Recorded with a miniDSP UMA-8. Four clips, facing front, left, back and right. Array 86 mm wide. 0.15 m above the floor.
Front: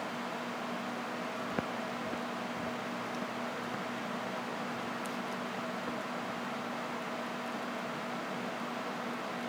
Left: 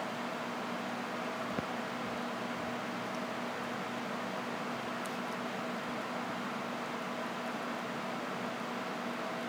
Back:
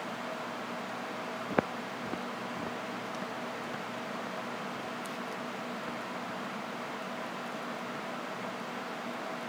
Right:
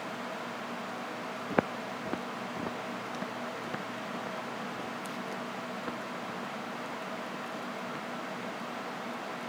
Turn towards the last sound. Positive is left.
turn(degrees=-85)